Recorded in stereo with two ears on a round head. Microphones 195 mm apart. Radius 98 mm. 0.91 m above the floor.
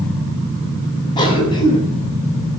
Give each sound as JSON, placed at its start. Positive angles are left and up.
{"t": 1.2, "sound": "a cough", "side_deg": 20, "distance_m": 8.5}